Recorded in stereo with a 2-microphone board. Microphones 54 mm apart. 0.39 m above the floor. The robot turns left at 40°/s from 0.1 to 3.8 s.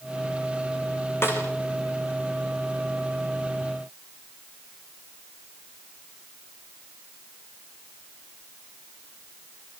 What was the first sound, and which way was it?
A snare drum, 45° left (ahead or behind).